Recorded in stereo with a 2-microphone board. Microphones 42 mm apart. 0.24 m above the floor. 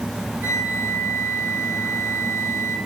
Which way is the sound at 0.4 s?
65° right (ahead or behind).